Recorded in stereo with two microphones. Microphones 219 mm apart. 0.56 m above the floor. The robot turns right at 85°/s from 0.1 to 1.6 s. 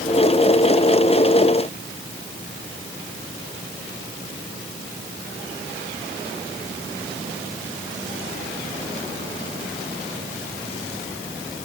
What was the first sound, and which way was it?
Only background noise.